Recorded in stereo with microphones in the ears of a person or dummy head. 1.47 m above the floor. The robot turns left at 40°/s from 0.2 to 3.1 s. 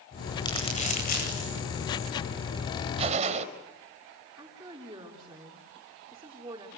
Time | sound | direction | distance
0.4 | crumpling | 15° left (ahead or behind) | 9.5 m
3.0 | a gunshot | 35° right (ahead or behind) | 3.5 m
4.4 | a woman speaking | 20° right (ahead or behind) | 3.5 m